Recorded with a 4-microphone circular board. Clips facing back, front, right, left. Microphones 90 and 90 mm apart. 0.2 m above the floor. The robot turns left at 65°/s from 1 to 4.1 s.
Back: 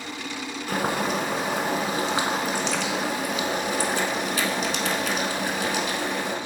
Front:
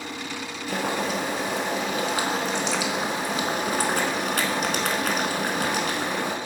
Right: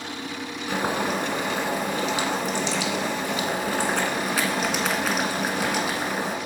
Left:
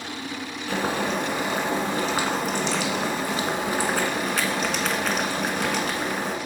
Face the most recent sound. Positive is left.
turn(degrees=-5)